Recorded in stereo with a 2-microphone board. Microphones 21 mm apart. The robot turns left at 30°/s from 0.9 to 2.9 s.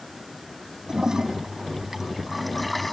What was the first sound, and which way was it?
A toilet flushing, 130° right.